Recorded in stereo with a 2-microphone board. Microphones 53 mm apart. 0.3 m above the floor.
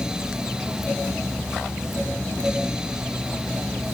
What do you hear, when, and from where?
Only background noise.